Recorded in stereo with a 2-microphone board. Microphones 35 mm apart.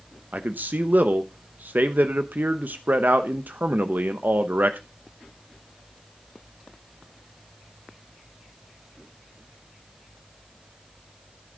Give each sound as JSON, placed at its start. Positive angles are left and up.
{"t": 0.3, "sound": "a man speaking", "side_deg": -55, "distance_m": 0.8}